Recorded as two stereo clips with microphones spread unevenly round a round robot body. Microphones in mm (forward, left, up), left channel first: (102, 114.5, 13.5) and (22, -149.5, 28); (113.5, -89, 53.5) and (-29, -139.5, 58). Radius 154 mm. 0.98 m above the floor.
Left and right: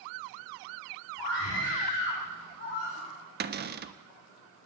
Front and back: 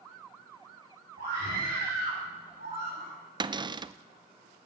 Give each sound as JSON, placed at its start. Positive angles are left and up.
{"t": 1.2, "sound": "a scream", "azimuth_deg": 135, "distance_m": 7.0}
{"t": 3.4, "sound": "a cupboard door", "azimuth_deg": -125, "distance_m": 0.5}